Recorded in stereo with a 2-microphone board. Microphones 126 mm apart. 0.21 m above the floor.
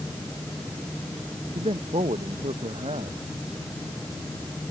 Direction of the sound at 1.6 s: 55° right (ahead or behind).